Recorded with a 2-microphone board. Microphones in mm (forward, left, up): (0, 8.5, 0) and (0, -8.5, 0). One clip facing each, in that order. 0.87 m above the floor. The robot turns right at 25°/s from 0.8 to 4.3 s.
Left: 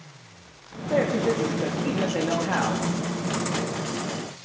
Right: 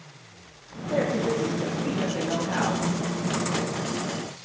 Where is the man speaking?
35° left, 1.6 m; by 2.9 s 85° left, 1.6 m.